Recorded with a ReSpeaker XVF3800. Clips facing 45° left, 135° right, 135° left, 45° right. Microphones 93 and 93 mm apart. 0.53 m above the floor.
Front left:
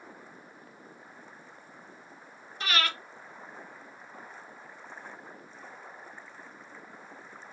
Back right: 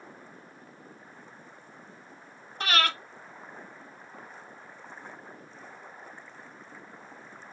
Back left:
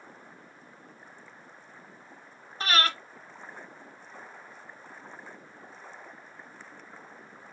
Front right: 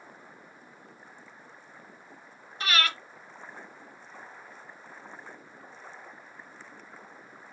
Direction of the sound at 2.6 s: 170° right.